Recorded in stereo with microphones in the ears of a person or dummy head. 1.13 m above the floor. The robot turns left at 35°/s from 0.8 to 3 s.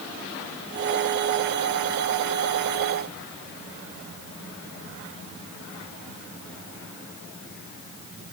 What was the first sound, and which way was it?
Only background noise.